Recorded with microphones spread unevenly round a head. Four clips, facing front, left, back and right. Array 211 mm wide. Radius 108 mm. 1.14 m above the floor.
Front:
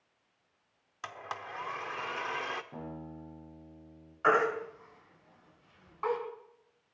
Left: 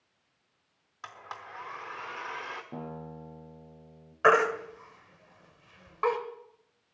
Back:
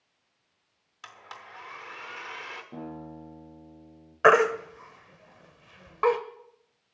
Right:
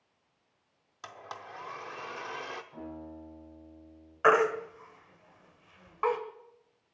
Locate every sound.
1.0 s a blender: 35° right, 0.8 m
2.7 s a guitar: 105° left, 8.5 m
4.2 s a baby crying: 175° left, 1.6 m